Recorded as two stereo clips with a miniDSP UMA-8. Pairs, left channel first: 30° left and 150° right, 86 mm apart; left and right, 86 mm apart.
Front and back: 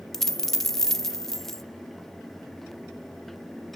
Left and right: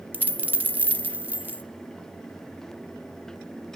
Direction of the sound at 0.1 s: 50° right.